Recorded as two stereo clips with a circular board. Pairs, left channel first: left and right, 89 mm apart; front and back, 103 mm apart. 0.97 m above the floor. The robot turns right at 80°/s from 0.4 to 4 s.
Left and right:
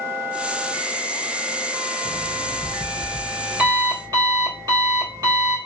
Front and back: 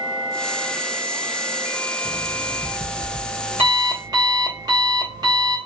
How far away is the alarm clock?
About 1.3 m.